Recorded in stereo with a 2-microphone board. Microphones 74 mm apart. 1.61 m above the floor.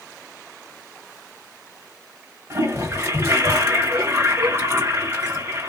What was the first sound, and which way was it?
A toilet flushing, 40° right (ahead or behind).